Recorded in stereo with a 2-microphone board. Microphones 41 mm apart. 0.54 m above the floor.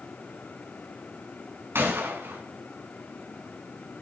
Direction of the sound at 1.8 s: 70° right (ahead or behind).